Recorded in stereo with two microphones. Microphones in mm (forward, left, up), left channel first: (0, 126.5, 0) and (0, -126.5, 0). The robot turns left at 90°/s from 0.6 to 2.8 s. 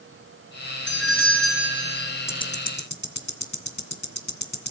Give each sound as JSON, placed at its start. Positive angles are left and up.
{"t": 0.9, "sound": "a doorbell", "azimuth_deg": 125, "distance_m": 5.0}
{"t": 2.3, "sound": "ticking", "side_deg": 10, "distance_m": 2.0}